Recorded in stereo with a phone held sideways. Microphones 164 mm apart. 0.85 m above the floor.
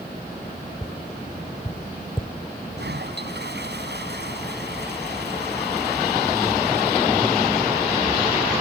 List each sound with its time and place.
0.8 s tapping: 30° left (ahead or behind)
2.8 s a toilet flushing: 85° right